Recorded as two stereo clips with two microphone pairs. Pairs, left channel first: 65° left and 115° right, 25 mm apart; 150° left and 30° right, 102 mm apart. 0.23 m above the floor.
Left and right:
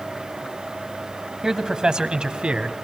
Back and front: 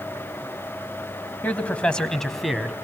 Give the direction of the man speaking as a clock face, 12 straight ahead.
5 o'clock.